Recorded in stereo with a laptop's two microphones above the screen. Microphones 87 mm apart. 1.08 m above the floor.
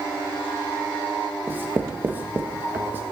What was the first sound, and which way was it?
Writing, 25° right (ahead or behind).